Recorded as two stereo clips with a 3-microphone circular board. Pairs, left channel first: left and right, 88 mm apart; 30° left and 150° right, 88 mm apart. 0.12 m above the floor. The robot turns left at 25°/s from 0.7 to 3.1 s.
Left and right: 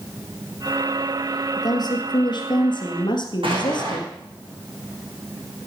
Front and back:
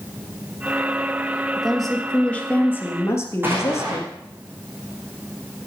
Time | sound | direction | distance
1.6 | a woman speaking | 125° left | 2 m
3.4 | an explosion | 85° right | 3.5 m